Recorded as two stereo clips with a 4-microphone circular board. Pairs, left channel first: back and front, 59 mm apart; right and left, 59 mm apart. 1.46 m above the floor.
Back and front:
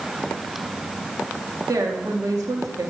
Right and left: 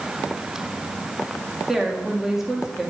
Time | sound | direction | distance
1.7 | a woman speaking | 5° left | 2 m